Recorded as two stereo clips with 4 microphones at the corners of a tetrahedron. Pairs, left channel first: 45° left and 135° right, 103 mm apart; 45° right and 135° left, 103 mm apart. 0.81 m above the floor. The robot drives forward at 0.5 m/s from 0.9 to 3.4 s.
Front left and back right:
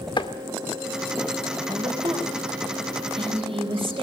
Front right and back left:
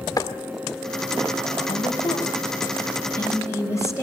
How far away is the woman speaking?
About 4 m.